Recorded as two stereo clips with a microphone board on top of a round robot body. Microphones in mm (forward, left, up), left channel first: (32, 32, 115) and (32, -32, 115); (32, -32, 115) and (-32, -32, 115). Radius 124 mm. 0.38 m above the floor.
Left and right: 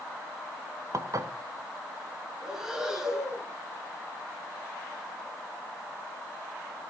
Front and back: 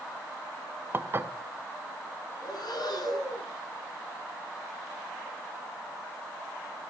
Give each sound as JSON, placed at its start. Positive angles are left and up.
{"t": 0.9, "sound": "dishes clattering", "azimuth_deg": -125, "distance_m": 1.4}
{"t": 2.4, "sound": "breathing", "azimuth_deg": -10, "distance_m": 7.0}